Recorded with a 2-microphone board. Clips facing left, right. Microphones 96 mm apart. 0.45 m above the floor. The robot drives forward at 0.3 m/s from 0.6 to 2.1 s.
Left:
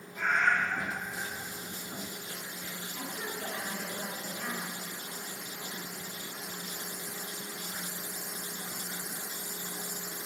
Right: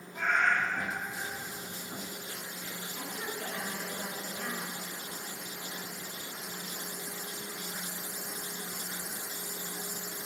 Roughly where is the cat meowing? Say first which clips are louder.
Even; right.